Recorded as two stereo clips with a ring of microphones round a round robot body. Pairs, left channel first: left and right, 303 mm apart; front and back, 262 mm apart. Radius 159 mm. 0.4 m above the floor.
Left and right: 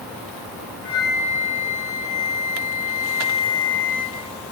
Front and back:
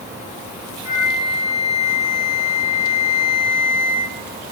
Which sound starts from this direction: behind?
A flute, at 0.8 s.